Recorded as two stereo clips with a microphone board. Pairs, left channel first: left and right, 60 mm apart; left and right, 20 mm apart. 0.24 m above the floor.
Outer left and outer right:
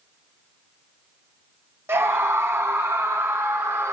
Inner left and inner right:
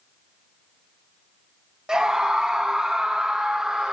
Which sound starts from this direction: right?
A scream, at 1.9 s.